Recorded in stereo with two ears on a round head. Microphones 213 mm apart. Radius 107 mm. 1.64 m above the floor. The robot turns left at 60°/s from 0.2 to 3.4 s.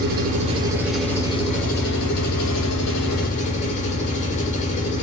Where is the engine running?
135° right, 5 m; by 5.0 s 35° left, 5 m.